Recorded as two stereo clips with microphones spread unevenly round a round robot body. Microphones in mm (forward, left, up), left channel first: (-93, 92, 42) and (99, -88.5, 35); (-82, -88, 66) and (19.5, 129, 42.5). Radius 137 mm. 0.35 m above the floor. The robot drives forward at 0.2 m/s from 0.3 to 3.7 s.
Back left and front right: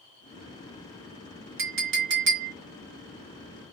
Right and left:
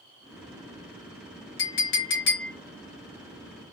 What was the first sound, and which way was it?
A clink, 75° right.